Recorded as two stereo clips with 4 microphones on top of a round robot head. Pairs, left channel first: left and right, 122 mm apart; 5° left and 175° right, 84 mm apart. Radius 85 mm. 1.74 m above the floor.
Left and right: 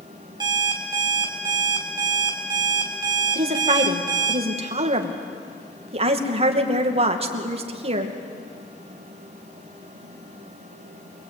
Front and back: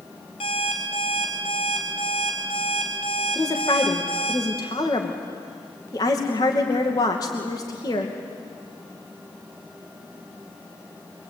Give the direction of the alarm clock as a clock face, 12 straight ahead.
1 o'clock.